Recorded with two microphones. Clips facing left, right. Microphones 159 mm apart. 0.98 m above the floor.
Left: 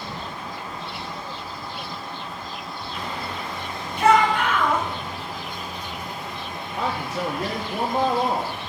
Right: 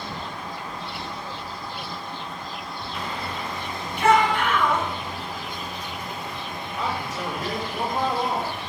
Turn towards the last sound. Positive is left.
turn(degrees=70)  # may be behind; listen again after turning